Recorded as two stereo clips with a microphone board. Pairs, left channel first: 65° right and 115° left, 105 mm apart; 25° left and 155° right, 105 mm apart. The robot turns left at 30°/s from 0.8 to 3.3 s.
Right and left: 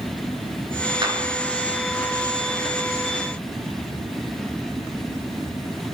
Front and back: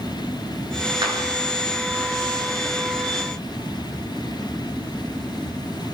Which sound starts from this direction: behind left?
A clap, at 1.0 s.